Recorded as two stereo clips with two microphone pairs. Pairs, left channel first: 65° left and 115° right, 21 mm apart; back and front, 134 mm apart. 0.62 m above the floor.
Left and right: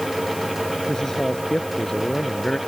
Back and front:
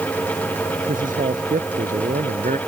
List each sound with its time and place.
0.9 s a man speaking: straight ahead